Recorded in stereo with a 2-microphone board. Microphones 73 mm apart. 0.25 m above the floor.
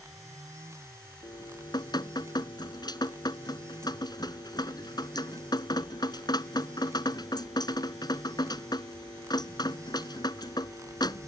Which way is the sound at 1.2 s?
65° left (ahead or behind).